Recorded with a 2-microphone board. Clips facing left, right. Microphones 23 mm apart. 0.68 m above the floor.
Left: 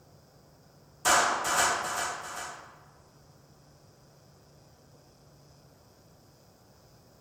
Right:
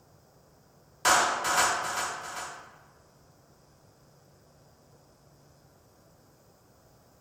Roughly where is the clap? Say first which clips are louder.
Right 1 dB; right.